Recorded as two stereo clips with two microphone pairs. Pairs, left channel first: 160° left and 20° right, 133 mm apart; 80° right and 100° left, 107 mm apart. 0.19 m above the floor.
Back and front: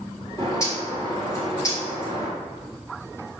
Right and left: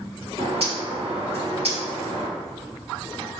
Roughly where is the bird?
Left.